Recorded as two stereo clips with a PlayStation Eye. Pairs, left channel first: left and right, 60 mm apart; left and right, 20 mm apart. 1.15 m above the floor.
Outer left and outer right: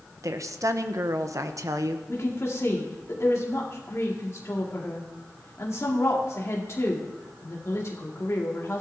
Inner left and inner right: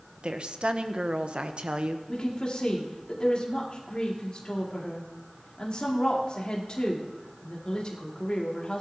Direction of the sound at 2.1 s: 50° left (ahead or behind).